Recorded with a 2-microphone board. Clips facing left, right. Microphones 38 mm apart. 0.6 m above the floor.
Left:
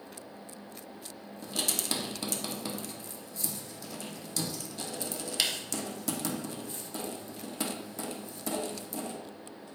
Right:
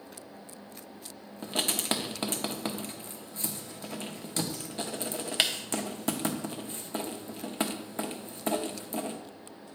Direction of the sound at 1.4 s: 35° right (ahead or behind).